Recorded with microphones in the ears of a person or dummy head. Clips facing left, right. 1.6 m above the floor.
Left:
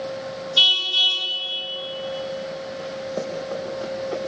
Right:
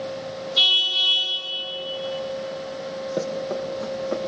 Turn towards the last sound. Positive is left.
turn(degrees=-70)  # may be behind; listen again after turning